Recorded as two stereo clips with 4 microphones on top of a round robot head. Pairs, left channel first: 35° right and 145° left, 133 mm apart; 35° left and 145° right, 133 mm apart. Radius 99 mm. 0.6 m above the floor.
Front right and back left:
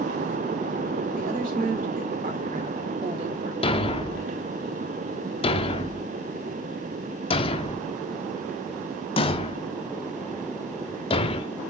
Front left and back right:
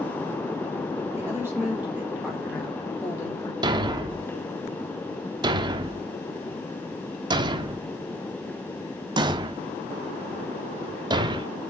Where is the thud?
85° right, 0.6 m.